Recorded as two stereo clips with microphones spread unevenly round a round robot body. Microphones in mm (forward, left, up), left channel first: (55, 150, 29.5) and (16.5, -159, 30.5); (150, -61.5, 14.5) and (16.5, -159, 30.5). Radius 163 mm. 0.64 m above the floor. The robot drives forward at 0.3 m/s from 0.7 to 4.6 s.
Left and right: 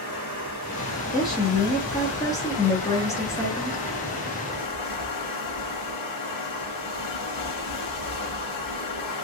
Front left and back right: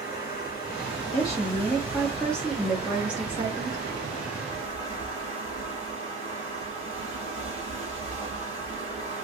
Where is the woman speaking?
20° left, 0.9 m; by 3.8 s 155° left, 0.9 m.